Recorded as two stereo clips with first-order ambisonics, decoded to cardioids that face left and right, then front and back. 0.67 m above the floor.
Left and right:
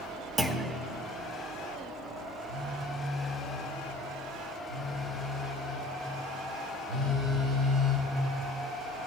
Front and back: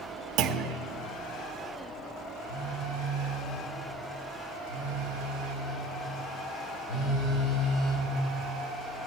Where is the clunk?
165° right, 0.8 m.